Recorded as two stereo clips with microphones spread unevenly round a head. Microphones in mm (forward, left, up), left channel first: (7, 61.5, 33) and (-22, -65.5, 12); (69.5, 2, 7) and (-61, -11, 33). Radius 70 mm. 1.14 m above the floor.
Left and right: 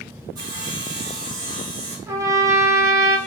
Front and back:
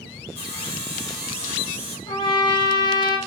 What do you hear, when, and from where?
0.3 s sawing: 40° right, 1.8 m
2.1 s a trumpet: 40° right, 0.7 m